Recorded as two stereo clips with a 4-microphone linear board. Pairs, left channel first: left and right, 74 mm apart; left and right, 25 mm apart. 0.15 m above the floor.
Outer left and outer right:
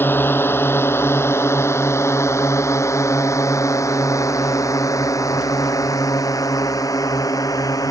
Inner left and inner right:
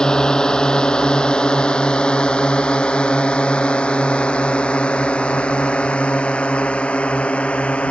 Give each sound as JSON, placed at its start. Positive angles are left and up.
{"t": 0.0, "sound": "a drone", "side_deg": 30}